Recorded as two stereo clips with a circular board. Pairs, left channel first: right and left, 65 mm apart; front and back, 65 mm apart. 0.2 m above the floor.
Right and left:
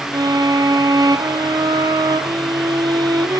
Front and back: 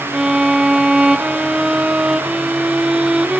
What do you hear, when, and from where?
0.1 s a violin: 100° left, 0.9 m